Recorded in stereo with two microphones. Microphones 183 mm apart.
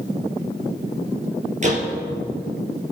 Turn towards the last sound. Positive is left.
turn(degrees=-40)  # may be behind; listen again after turning